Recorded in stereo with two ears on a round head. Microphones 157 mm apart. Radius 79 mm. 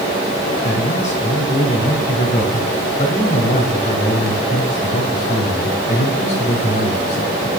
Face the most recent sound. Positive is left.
turn(degrees=40)  # may be behind; listen again after turning